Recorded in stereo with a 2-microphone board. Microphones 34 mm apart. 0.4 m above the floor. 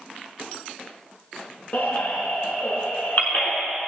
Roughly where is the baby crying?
Left.